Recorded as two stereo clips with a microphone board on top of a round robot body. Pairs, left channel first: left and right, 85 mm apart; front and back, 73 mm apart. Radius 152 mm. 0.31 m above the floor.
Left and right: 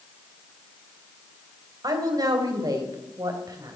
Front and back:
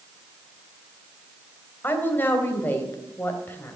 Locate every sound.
1.8 s a woman speaking: 60° right, 3 m